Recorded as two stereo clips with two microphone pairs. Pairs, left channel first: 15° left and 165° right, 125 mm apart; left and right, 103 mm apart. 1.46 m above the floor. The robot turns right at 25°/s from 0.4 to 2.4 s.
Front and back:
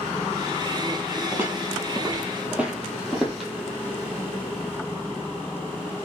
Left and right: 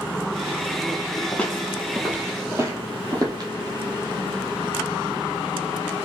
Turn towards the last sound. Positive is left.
turn(degrees=-80)